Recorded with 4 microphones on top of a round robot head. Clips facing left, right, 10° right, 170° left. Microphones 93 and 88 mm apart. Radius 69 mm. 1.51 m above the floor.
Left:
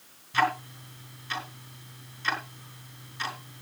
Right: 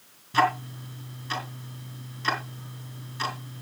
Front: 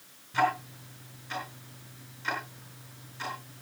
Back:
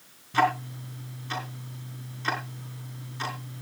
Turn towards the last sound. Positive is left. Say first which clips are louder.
# right 3 dB, back 3 dB
turn(degrees=-130)